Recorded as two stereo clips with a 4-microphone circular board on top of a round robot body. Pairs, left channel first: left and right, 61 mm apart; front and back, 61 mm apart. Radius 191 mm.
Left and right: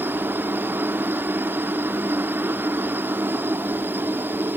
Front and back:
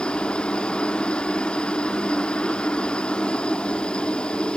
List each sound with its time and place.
0.0 s a helicopter: 65° right